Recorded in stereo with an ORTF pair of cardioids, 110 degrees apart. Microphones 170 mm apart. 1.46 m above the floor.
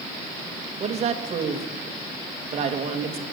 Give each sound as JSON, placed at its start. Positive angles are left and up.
{"t": 0.8, "sound": "a woman speaking", "azimuth_deg": -40, "distance_m": 2.5}